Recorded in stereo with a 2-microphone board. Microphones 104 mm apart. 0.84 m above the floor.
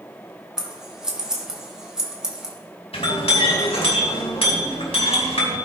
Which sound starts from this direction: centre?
Scissors, at 0.6 s.